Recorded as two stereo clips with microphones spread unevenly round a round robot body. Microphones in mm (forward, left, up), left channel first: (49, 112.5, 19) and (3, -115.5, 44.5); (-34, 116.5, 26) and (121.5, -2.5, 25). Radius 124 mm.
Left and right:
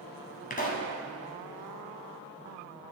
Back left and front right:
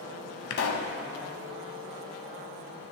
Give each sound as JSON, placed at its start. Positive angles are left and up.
{"t": 0.5, "sound": "a pop", "azimuth_deg": 135, "distance_m": 1.1}